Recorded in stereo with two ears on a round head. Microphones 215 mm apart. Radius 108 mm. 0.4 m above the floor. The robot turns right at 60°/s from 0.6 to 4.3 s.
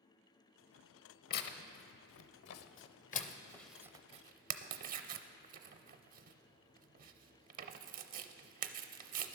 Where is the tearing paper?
35° left (ahead or behind), 0.5 m; by 9.4 s 35° right (ahead or behind), 0.5 m.